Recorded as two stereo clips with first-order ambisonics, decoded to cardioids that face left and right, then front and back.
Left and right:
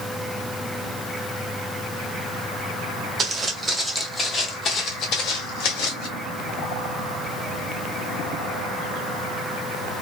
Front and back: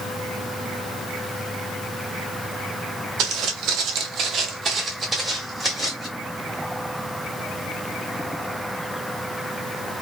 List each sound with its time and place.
3.2 s footsteps: 155° right, 0.9 m; by 6.1 s 90° left, 1.3 m